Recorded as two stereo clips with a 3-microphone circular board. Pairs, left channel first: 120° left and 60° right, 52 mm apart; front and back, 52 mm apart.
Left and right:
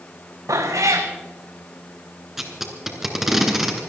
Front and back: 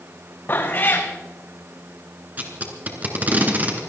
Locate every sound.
0.5 s a cat meowing: 50° right, 2 m
2.4 s tape being pulled: 140° right, 2.5 m